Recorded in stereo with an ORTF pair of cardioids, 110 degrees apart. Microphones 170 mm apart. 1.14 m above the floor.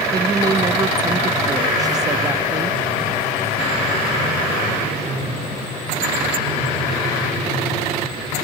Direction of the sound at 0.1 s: 25° right.